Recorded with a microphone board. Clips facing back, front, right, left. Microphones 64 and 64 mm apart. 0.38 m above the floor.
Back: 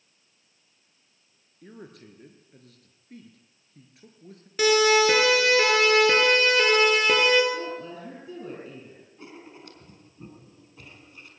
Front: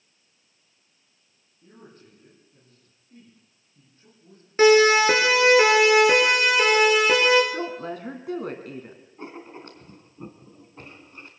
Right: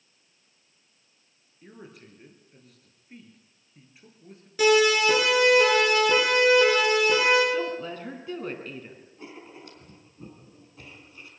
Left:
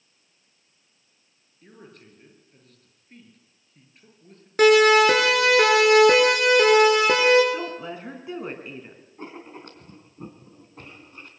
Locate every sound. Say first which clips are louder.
1.6 s a man speaking: back 4 dB, right 1 dB; 175° right, 6.5 m
4.6 s a siren: front 4 dB, left 5 dB; 55° left, 5 m; by 7.4 s 85° left, 7.5 m
7.5 s a woman speaking: front 3 dB, right 2 dB; 15° left, 4 m
9.2 s writing: front 6 dB, left 5 dB; 50° left, 3.5 m